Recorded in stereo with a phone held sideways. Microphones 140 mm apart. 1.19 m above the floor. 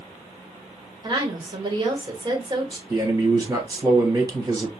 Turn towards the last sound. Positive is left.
turn(degrees=-30)  # may be behind; listen again after turning